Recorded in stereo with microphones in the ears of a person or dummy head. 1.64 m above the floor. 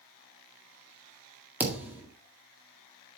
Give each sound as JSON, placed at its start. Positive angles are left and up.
{"t": 1.6, "sound": "a thud", "side_deg": -15, "distance_m": 1.8}